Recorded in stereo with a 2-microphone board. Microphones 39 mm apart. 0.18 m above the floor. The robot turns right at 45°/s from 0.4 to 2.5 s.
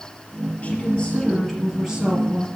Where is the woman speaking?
135° left, 4 m; by 2.5 s 140° right, 4 m.